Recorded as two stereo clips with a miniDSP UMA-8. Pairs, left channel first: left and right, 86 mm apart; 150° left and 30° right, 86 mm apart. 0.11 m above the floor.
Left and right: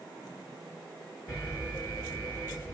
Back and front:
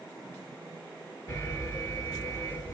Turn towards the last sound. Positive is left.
turn(degrees=140)